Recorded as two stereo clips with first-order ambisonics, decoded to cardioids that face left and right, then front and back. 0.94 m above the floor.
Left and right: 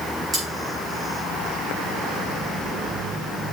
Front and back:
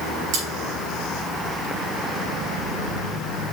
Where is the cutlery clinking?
160° right, 6 m.